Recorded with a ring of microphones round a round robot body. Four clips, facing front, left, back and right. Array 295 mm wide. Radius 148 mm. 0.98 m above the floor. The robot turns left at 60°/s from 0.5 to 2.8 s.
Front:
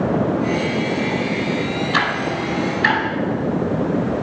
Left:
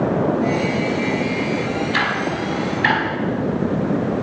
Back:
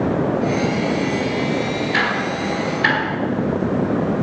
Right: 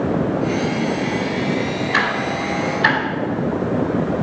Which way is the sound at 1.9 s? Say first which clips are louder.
Right 1 dB, even; 40° right.